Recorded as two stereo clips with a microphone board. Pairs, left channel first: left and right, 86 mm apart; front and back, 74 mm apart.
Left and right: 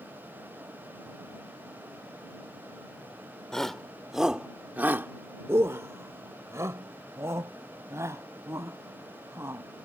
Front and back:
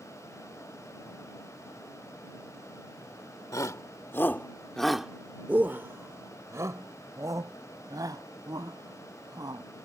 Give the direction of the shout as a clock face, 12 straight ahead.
12 o'clock.